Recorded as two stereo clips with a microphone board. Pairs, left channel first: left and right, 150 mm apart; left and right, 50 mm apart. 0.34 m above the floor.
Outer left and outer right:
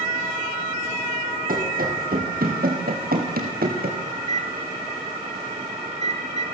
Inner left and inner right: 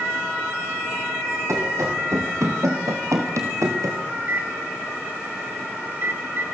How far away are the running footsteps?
About 4 m.